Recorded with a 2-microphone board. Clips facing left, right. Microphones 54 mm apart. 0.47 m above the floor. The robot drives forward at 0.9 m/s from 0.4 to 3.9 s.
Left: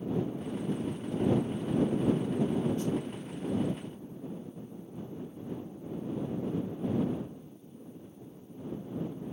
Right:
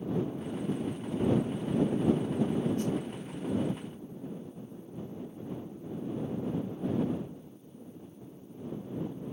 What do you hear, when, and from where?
2.8 s a snare drum: 55° right (ahead or behind); by 3.0 s 60° right (ahead or behind)